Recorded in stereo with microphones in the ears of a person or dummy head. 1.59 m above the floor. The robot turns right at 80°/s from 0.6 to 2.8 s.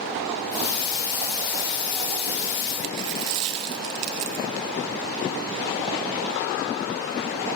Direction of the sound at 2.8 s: 25° right (ahead or behind).